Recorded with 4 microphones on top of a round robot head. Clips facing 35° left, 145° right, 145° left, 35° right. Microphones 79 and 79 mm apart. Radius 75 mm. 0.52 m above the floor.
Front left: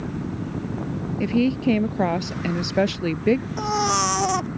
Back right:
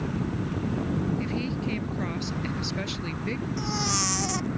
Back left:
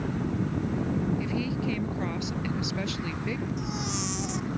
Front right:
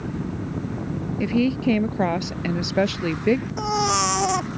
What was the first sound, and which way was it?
A woman speaking, straight ahead.